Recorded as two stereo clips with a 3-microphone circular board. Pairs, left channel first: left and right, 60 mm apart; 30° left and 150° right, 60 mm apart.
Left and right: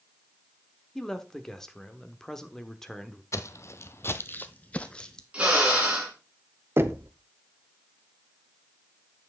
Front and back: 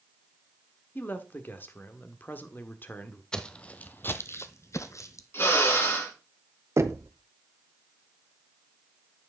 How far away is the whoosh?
I don't hear a whoosh.